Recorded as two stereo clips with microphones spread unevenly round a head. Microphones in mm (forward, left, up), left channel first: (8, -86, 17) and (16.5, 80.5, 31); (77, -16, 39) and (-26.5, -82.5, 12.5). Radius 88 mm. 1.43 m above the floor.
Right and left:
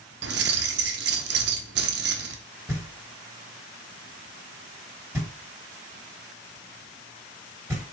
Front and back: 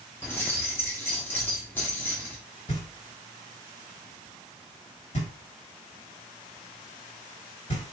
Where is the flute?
No flute in this recording.